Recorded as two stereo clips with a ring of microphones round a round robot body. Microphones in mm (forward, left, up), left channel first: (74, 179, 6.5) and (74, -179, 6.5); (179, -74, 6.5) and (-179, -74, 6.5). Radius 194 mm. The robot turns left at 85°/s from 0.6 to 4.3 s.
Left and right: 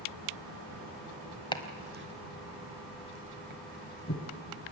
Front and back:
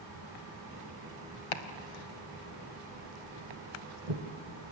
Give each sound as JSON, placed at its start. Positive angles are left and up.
{"t": 1.5, "sound": "chopping", "azimuth_deg": 15, "distance_m": 1.1}